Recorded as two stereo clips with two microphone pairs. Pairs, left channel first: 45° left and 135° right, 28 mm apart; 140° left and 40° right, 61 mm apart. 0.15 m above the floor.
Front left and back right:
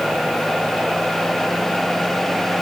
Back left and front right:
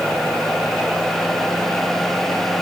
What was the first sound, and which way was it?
Only background noise.